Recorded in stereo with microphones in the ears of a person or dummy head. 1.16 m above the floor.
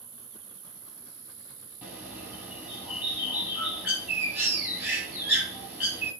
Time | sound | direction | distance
0.0 | an insect | 55° right (ahead or behind) | 5.5 m
1.8 | a bird | 10° right (ahead or behind) | 6.5 m